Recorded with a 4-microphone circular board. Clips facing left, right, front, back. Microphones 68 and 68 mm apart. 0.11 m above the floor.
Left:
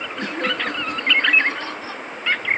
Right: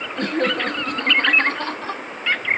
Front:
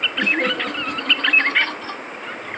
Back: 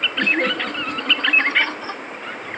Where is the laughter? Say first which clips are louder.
Right 4 dB, even; 85° right, 4 m; by 2.0 s 105° right, 4.5 m.